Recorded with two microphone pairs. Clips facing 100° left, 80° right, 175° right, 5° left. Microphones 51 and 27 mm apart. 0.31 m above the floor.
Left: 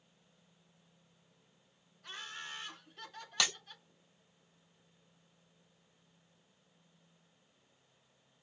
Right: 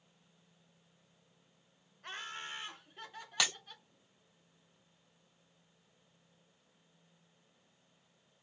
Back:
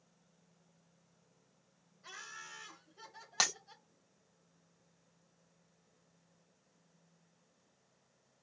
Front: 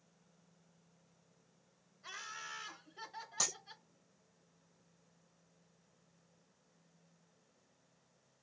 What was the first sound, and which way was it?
Laughter, 60° right.